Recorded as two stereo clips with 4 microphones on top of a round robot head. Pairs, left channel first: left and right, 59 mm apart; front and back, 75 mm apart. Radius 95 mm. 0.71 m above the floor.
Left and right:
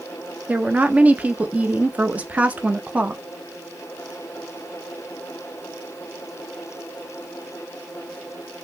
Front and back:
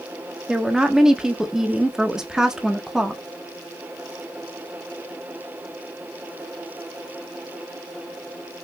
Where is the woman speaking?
110° right, 0.9 m.